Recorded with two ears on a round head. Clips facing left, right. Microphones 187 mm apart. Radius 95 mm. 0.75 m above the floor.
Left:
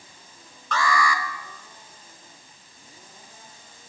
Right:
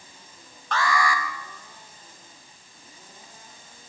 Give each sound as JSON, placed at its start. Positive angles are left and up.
{"t": 0.7, "sound": "an alarm", "side_deg": 80, "distance_m": 3.5}